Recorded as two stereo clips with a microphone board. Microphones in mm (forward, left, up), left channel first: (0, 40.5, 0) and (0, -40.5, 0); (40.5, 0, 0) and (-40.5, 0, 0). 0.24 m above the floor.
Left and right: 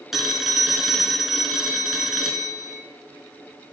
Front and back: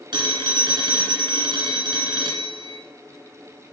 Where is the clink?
No clink in this recording.